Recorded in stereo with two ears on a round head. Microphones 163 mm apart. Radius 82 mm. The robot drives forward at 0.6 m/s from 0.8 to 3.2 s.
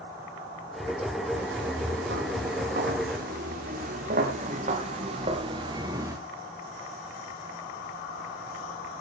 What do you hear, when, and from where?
1.4 s footsteps: 55° right (ahead or behind), 9.5 m; by 6.2 s 15° right (ahead or behind), 3.5 m